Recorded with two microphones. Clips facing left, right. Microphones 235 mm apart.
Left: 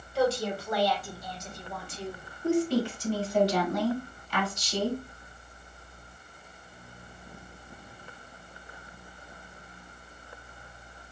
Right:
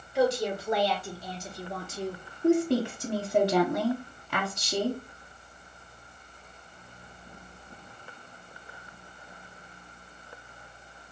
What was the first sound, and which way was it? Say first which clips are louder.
A woman speaking: right 1 dB; 15° right (ahead or behind).